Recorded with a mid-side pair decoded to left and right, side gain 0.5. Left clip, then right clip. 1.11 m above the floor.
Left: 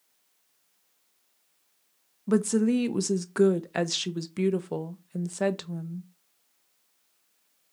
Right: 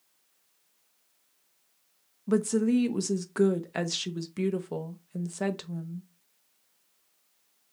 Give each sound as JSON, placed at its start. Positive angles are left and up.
{"t": 2.3, "sound": "a woman speaking", "azimuth_deg": 20, "distance_m": 0.6}